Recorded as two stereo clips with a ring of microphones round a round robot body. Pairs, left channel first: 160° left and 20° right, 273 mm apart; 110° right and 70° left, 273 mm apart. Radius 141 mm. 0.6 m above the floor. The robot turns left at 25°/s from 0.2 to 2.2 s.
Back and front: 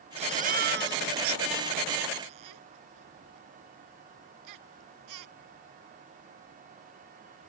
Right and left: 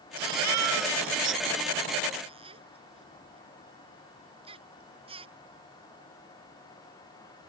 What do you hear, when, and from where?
0.2 s a baby crying: 45° left; by 5.3 s 5° right